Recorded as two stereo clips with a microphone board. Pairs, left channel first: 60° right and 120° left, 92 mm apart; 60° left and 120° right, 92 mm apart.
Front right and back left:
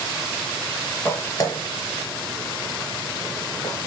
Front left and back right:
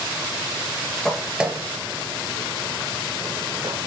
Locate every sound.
1.1 s footsteps: 20° right, 1.7 m; by 3.9 s 115° right, 4 m